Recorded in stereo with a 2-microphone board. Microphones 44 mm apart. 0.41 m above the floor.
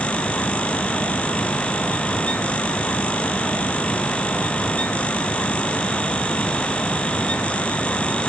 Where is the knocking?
No knocking in this recording.